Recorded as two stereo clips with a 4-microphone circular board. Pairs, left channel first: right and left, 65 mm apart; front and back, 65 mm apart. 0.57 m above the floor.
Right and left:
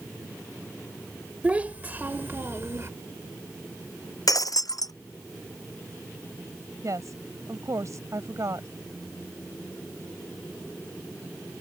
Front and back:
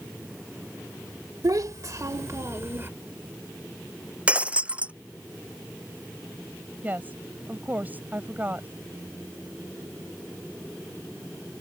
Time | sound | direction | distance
1.4 | a child speaking | 160° left | ?
4.3 | breaking glass | 110° right | ?
6.8 | a woman speaking | 120° left | ?